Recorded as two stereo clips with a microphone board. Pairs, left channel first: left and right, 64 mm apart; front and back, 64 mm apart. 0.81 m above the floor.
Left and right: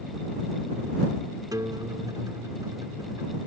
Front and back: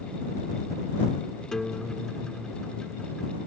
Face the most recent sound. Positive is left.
turn(degrees=-80)